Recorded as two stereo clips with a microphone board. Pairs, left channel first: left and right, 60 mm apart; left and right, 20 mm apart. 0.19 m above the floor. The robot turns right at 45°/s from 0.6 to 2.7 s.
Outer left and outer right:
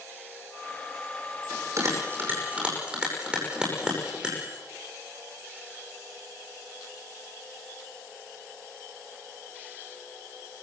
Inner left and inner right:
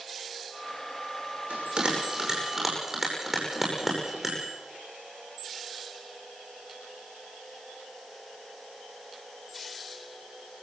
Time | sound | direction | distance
1.5 | a bell | 70° right (ahead or behind) | 9.5 m